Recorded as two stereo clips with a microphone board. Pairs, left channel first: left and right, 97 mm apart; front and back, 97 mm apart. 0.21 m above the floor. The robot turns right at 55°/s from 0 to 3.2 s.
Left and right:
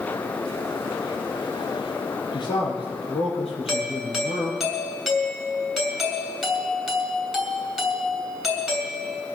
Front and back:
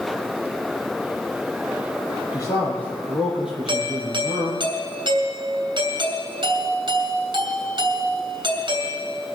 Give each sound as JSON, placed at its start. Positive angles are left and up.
{"t": 2.3, "sound": "a man speaking", "azimuth_deg": 50, "distance_m": 4.5}
{"t": 3.7, "sound": "a doorbell", "azimuth_deg": 180, "distance_m": 3.0}